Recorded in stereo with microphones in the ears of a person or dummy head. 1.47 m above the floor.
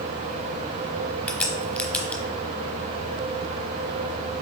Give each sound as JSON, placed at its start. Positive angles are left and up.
{"t": 1.3, "sound": "a crack", "side_deg": 5, "distance_m": 0.8}